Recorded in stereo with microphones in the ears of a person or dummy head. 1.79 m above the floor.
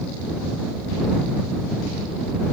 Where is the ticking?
I don't hear ticking.